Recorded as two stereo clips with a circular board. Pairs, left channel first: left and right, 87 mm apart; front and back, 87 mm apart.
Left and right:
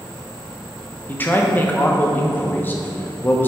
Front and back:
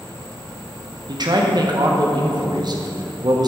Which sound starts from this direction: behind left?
A man speaking, at 1.1 s.